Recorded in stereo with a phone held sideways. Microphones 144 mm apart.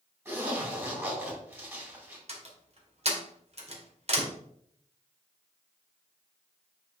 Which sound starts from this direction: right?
A door slam, at 2.3 s.